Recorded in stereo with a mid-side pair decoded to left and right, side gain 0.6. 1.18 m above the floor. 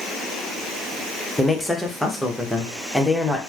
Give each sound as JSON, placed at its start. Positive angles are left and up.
{"t": 1.4, "sound": "a man speaking", "azimuth_deg": 0, "distance_m": 0.9}